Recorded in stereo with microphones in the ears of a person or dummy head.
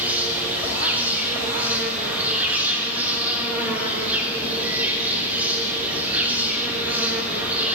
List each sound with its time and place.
0.0 s an insect: 10° right (ahead or behind), 1.0 m